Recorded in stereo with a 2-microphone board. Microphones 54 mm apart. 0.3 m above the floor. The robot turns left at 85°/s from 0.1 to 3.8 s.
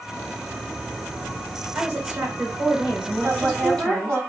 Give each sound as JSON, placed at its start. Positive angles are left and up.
{"t": 1.8, "sound": "a woman speaking", "azimuth_deg": -20, "distance_m": 1.2}
{"t": 3.2, "sound": "a woman speaking", "azimuth_deg": -70, "distance_m": 2.0}